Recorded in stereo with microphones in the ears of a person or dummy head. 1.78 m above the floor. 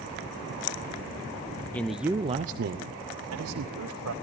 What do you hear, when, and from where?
1.7 s a man speaking: 10° left (ahead or behind), 0.7 m; by 4.1 s 75° right (ahead or behind), 1.7 m